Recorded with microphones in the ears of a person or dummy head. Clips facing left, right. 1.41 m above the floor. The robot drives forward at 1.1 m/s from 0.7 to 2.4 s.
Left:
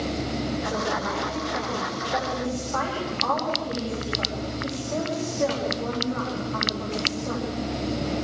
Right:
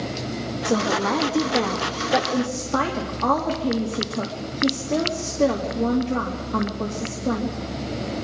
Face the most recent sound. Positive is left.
turn(degrees=-55)  # may be behind; listen again after turning